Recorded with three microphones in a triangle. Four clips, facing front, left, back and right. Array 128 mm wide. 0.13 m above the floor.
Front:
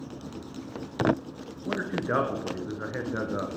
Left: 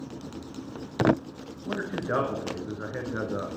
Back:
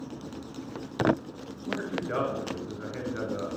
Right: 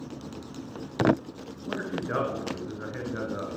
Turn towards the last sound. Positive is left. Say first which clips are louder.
# left 1 dB, front 3 dB
turn(degrees=25)